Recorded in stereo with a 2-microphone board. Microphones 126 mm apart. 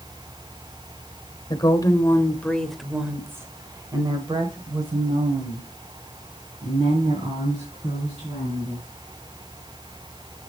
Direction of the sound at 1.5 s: 35° left (ahead or behind).